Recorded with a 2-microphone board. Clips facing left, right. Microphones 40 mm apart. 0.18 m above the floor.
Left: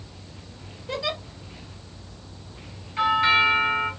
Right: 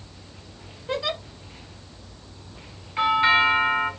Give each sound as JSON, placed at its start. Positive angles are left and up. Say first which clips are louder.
{"t": 0.9, "sound": "a giggle", "louder": "right 2 dB", "side_deg": -15, "distance_m": 2.0}
{"t": 3.0, "sound": "a doorbell", "louder": "right 1 dB", "side_deg": -15, "distance_m": 2.0}